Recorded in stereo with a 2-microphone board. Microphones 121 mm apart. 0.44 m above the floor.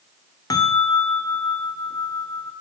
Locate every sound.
0.5 s a bell: 30° left (ahead or behind), 1.0 m